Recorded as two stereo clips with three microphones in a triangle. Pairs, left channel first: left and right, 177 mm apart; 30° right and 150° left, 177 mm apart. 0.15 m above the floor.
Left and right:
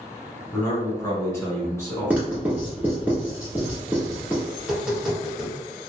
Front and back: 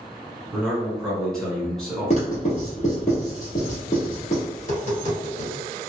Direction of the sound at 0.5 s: 50° left.